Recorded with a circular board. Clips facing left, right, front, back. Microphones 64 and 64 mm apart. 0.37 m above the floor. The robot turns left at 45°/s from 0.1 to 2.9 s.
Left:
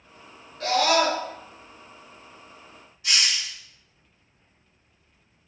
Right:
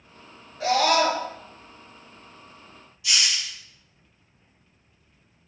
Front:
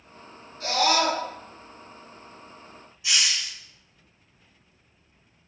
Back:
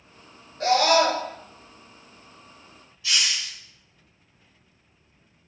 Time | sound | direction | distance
0.6 | a scream | 170° right | 1.6 m
3.0 | a hiss | 65° left | 1.0 m